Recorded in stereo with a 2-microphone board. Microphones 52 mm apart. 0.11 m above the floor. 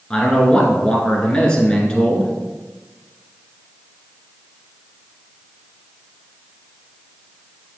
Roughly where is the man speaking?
Centre.